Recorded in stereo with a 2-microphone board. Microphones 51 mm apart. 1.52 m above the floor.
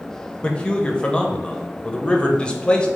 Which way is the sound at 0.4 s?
20° left (ahead or behind).